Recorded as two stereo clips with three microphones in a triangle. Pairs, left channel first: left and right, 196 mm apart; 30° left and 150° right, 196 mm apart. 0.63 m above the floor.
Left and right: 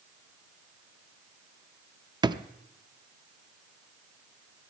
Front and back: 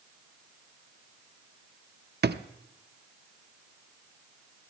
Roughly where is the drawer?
Behind right.